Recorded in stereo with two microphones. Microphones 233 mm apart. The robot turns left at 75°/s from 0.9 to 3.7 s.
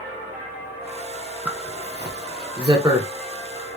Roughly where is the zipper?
Centre.